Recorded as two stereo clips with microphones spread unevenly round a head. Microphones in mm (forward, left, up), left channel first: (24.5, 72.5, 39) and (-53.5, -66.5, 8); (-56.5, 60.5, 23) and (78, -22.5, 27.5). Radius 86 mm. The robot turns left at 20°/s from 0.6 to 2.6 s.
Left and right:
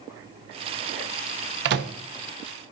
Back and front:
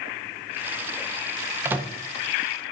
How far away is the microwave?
About 0.6 m.